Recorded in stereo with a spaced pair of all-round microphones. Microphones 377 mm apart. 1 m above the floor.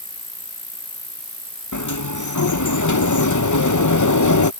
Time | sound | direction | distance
0.0 | an insect | 45° right (ahead or behind) | ?
1.7 | a sliding door | 50° left (ahead or behind) | ?